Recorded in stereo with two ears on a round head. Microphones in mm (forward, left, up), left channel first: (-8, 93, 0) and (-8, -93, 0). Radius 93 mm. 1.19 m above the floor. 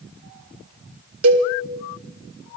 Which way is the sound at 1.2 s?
70° right (ahead or behind).